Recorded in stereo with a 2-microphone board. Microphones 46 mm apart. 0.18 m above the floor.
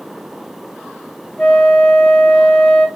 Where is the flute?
20° left (ahead or behind), 1.0 m.